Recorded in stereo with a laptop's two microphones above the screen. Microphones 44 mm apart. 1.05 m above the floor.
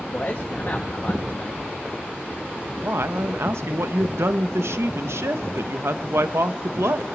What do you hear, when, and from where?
0.1 s a man speaking: 45° left (ahead or behind), 1.7 m
2.8 s a man speaking: 80° right, 0.6 m